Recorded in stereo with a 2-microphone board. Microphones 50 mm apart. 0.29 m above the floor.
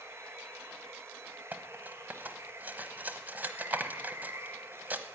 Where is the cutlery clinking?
35° right (ahead or behind), 1.1 m.